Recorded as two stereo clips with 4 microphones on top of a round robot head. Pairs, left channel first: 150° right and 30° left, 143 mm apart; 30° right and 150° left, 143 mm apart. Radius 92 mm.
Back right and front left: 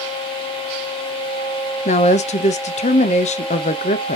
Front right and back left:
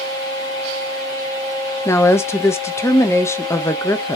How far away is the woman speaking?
About 0.5 m.